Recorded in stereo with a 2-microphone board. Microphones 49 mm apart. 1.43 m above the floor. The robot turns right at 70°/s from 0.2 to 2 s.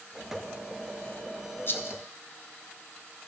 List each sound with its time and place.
1.7 s a rattle: 45° left (ahead or behind), 1.0 m; by 2.0 s 65° left (ahead or behind), 1.0 m